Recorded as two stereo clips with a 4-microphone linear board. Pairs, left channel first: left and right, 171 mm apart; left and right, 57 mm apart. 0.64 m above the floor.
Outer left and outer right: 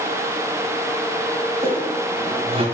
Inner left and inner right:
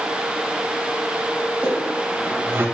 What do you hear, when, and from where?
1.6 s a squeak: 35° right (ahead or behind), 0.8 m